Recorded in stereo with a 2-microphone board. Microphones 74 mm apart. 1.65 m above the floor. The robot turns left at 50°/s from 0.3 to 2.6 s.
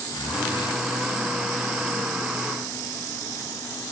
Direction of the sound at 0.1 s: 75° left (ahead or behind).